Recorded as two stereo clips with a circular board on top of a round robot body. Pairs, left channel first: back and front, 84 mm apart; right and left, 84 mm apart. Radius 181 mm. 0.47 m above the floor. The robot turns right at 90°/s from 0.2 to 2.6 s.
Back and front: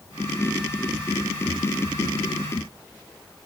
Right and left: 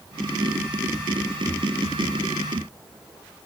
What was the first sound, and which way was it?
Only background noise.